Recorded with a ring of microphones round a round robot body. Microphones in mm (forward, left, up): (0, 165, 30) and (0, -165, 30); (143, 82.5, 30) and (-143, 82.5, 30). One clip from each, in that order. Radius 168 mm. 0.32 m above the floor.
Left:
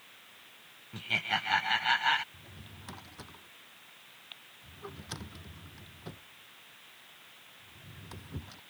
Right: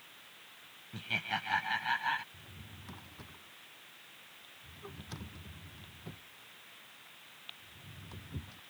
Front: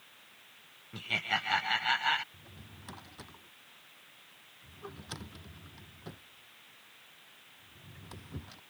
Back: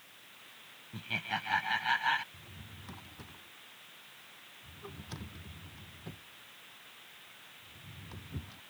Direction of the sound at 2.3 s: 30° left.